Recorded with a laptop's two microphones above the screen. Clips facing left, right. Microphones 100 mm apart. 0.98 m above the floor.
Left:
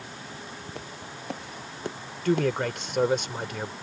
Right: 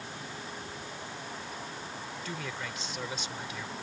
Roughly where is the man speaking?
Left.